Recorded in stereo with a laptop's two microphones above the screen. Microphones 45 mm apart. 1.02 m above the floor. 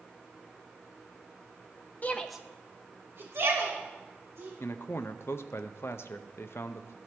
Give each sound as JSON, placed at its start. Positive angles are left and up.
{"t": 2.0, "sound": "a shout", "side_deg": 40, "distance_m": 0.6}
{"t": 4.6, "sound": "a man speaking", "side_deg": 65, "distance_m": 0.6}